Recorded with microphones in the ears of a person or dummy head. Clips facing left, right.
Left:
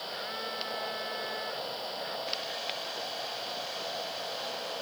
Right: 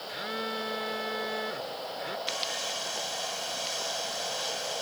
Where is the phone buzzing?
55° right (ahead or behind).